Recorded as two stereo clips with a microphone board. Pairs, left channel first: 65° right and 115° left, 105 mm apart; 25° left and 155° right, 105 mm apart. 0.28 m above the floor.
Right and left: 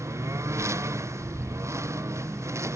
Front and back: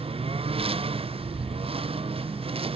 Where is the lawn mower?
175° left.